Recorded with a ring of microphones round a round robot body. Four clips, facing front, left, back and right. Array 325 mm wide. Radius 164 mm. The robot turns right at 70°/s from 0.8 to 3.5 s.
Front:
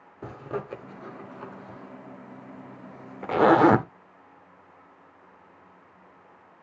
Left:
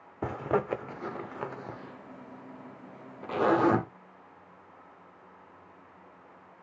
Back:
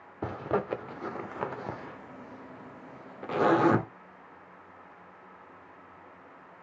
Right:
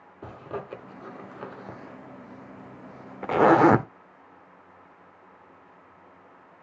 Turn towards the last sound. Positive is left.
turn(degrees=-55)